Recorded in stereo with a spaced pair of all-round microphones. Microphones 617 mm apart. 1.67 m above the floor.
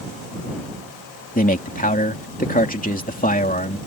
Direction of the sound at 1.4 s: 15° left (ahead or behind).